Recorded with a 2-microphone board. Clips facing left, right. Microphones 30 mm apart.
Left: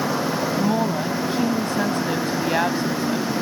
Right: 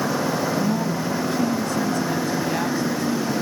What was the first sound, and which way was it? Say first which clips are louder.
A woman speaking: left 2 dB; 40° left (ahead or behind).